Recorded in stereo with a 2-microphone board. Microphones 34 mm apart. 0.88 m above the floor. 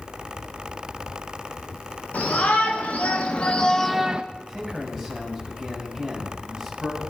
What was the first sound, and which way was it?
A shout, 55° left (ahead or behind).